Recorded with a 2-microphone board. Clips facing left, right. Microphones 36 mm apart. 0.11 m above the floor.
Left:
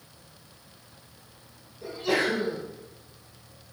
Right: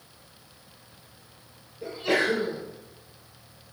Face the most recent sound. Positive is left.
turn(degrees=-35)  # may be behind; listen again after turning